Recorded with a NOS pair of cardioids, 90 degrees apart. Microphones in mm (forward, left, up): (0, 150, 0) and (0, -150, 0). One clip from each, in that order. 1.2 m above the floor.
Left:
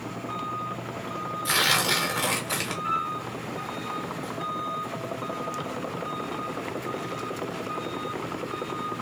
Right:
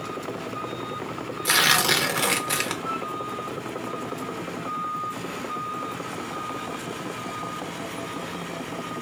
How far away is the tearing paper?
About 1.0 m.